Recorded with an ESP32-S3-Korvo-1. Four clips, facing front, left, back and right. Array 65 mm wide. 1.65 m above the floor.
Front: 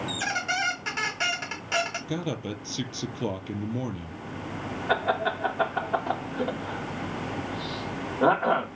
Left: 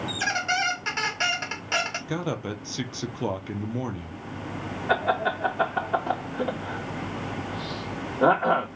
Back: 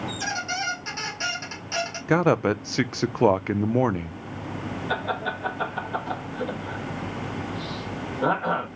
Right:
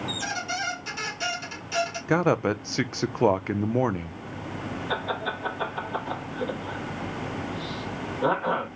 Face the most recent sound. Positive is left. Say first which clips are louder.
# left 7 dB, front 3 dB
turn(degrees=50)